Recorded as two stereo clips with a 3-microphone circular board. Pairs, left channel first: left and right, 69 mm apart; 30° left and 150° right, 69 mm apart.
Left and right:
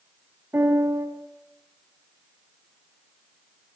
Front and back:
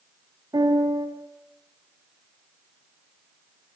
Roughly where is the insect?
I don't hear an insect.